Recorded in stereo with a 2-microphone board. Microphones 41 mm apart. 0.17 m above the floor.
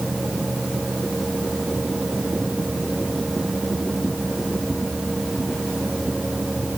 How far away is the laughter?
No laughter in this recording.